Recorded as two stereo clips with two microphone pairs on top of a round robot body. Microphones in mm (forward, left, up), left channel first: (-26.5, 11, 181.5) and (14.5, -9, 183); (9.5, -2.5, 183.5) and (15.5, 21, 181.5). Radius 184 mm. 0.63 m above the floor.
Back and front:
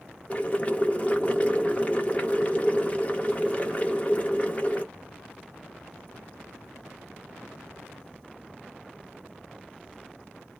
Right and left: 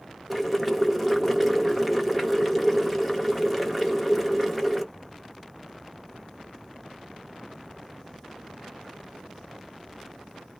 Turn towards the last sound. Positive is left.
turn(degrees=160)